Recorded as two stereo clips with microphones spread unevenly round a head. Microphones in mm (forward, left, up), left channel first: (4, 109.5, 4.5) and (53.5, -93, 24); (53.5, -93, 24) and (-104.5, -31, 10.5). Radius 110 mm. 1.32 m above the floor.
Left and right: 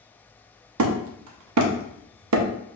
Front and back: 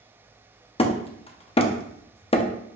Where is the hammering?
80° right, 0.6 m.